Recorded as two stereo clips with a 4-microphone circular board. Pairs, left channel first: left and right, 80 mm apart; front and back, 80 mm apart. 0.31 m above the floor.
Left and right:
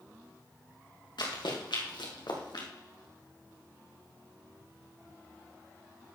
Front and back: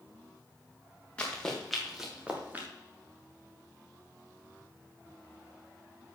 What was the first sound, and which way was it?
Running footsteps, 75° left.